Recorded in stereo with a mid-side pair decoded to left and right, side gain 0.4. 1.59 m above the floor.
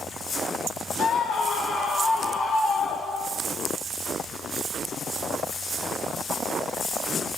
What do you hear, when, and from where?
1.0 s a scream: 65° left, 4.5 m; by 3.5 s 60° left, 6 m